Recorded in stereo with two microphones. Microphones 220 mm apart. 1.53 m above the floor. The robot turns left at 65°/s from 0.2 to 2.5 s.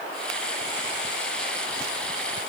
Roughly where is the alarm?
No alarm in this recording.